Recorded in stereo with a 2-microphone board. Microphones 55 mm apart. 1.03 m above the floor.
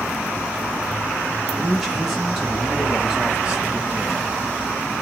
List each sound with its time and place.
1.6 s a man speaking: centre (ahead or behind), 2 m; by 4.3 s 25° right (ahead or behind), 1.2 m